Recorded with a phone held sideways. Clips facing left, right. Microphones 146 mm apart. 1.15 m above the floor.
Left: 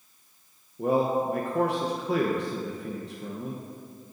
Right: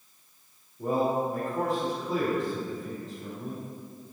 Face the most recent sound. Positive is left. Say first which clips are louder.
# left 2 dB
turn(degrees=75)  # may be behind; listen again after turning